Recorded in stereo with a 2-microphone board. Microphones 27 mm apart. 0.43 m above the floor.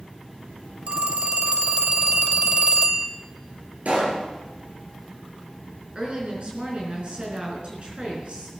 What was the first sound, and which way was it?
A phone ringing, 50° right (ahead or behind).